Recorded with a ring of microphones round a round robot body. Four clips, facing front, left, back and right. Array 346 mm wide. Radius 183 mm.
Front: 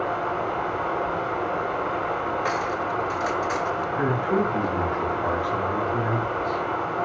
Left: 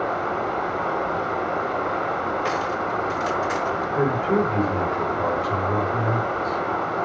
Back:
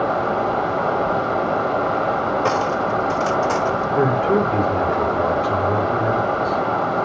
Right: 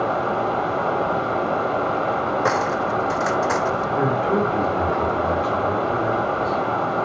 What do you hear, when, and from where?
0.0 s running water: 155° right, 2.0 m
2.5 s cutlery clinking: 135° right, 1.0 m
4.0 s a man speaking: straight behind, 7 m